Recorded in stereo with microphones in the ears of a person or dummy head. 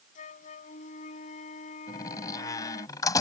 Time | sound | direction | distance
0.1 | a flute | 40° left (ahead or behind) | ?
1.9 | a door slam | 15° left (ahead or behind) | ?